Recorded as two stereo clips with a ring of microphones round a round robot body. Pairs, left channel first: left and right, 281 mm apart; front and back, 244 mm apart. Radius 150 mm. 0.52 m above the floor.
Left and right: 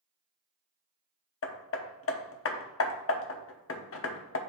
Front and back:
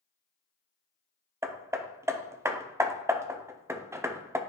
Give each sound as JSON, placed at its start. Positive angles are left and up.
{"t": 1.4, "sound": "hammering", "azimuth_deg": 105, "distance_m": 0.8}